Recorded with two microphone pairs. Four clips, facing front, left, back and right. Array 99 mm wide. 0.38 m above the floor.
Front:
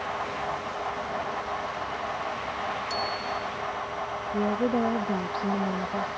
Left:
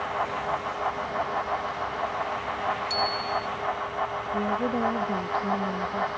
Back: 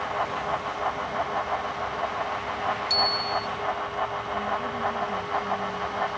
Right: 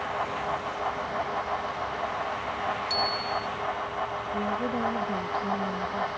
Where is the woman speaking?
35° left.